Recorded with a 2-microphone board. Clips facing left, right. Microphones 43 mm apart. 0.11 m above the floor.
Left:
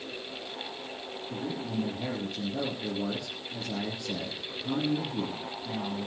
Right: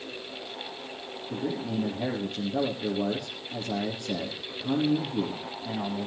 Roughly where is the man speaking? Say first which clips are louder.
Right 4 dB; right.